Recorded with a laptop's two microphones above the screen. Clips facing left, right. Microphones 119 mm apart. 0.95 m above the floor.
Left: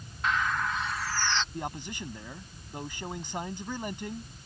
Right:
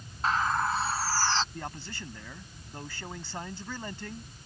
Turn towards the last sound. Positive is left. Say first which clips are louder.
# left 3 dB
turn(degrees=15)  # may be behind; listen again after turning